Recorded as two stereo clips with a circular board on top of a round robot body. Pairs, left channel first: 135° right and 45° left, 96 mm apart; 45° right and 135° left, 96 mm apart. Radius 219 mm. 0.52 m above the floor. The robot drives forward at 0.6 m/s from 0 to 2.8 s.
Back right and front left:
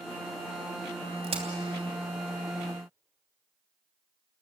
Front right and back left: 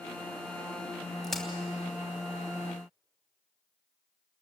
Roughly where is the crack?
Ahead left.